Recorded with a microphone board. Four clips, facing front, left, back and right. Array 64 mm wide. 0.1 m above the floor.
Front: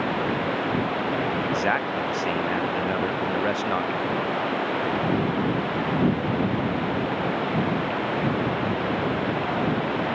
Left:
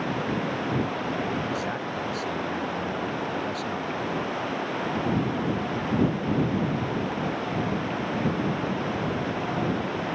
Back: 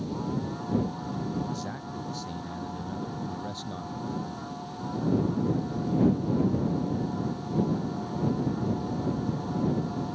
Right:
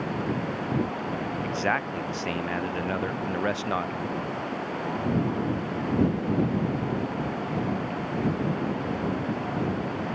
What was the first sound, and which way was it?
Running water, 10° left.